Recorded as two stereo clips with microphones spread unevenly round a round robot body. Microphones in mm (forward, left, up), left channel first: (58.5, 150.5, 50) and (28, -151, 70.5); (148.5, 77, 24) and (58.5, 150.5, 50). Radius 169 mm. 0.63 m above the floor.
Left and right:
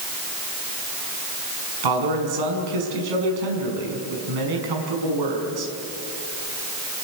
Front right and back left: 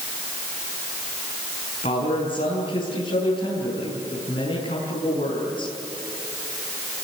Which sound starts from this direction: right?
A man speaking, at 1.8 s.